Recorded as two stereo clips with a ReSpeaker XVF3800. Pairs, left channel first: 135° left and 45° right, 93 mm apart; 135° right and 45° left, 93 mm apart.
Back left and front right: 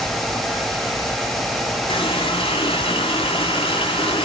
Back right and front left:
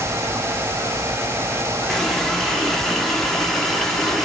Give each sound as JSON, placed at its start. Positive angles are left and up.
{"t": 1.9, "sound": "a running tap", "azimuth_deg": 140, "distance_m": 2.0}